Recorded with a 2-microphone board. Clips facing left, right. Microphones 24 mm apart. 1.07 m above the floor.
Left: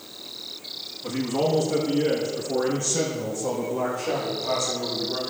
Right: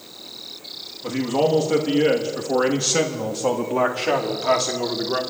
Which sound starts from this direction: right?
A man speaking, at 1.0 s.